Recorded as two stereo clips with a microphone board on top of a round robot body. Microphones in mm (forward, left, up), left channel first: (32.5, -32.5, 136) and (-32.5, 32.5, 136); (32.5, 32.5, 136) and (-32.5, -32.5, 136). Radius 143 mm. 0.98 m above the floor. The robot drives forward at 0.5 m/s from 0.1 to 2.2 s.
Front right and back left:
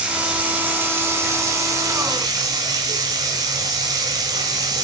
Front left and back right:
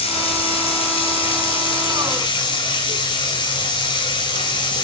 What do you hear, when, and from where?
0.0 s running water: 55° left, 2.5 m; by 4.8 s 85° left, 1.9 m